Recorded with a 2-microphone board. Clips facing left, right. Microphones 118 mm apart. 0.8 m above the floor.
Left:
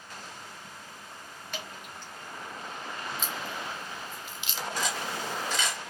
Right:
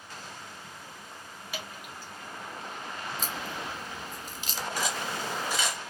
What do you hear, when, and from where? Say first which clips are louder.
1.5 s dripping: even; 5° right (ahead or behind), 1.6 m
3.2 s a crack: even; 40° right (ahead or behind), 0.7 m
4.8 s cutlery clinking: even; 10° right (ahead or behind), 1.7 m